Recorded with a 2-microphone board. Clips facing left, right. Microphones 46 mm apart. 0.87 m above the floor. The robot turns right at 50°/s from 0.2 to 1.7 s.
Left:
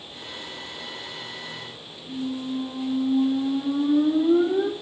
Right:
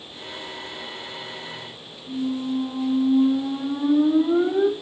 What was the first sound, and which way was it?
A squeak, 15° right (ahead or behind).